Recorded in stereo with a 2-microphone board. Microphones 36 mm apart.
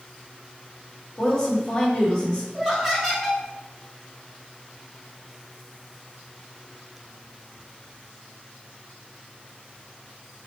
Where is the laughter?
5° left (ahead or behind), 3 m.